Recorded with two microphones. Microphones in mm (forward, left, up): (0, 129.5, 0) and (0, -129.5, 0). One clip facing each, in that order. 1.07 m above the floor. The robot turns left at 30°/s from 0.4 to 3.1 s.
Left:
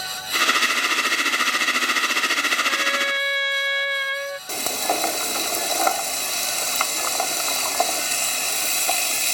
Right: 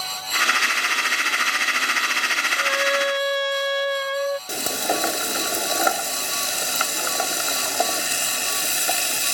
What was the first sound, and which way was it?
A trumpet, 65° right (ahead or behind).